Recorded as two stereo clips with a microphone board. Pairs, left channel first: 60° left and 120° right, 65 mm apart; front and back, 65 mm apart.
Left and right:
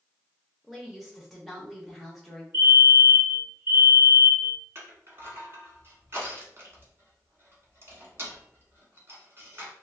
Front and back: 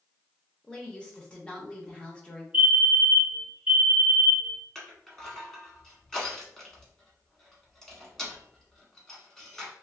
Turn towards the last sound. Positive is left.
turn(degrees=-80)